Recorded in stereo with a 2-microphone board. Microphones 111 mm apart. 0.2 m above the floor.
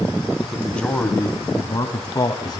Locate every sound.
0.4 s a man speaking: centre (ahead or behind), 1.2 m; by 2.6 s 40° left (ahead or behind), 1.5 m